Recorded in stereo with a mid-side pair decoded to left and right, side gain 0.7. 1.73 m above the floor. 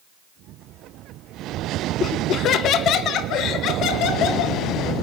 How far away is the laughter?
About 1.8 m.